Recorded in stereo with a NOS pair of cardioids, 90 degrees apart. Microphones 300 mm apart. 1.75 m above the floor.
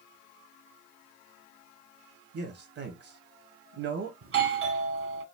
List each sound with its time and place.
2.3 s a man speaking: 60° right, 1.3 m
4.2 s a doorbell: 50° right, 1.3 m